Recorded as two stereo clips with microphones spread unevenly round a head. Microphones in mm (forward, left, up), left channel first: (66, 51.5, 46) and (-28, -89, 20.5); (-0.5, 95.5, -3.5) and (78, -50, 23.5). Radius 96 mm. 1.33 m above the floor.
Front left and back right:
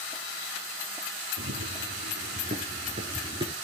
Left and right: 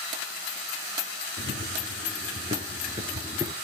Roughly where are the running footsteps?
Right.